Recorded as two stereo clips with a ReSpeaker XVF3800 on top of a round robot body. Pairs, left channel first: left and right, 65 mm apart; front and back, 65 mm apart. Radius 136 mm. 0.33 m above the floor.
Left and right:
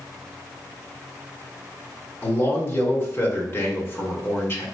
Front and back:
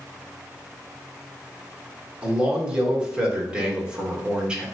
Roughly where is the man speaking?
Behind left.